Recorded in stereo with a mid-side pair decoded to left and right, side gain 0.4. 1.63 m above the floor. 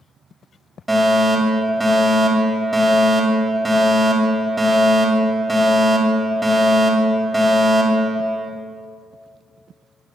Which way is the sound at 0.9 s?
5° right.